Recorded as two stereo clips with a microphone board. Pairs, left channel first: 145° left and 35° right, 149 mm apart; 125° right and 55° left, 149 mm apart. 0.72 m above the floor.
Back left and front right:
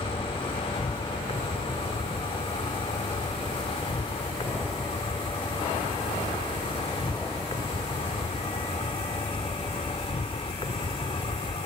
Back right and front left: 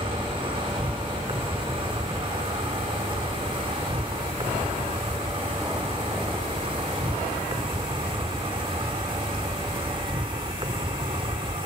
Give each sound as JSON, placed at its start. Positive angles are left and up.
{"t": 0.0, "sound": "an insect", "azimuth_deg": 100}